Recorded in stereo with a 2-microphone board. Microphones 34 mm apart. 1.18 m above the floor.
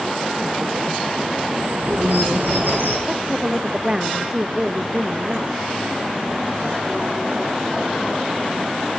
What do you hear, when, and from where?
1.5 s a bird: 65° right (ahead or behind), 9 m
3.1 s a woman speaking: 20° right (ahead or behind), 1.2 m